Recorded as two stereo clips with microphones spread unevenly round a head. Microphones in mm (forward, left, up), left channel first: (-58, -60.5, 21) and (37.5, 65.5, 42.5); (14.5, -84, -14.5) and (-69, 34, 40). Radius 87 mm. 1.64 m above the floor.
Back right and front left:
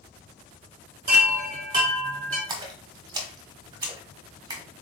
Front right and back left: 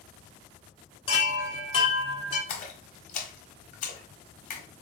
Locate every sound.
1.1 s a chime: 20° left, 1.3 m
2.5 s a splash: 15° right, 0.9 m